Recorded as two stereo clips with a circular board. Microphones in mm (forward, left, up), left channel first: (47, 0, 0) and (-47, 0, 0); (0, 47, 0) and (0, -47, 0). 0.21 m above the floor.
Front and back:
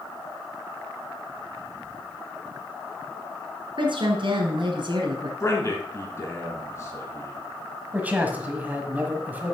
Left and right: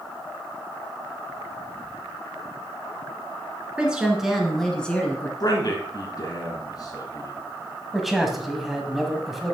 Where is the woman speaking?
170° right, 2 m; by 5.3 s 160° left, 1.9 m.